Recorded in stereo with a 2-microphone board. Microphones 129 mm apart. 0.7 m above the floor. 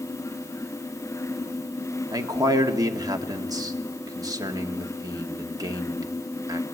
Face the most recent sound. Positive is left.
turn(degrees=-30)  # may be behind; listen again after turning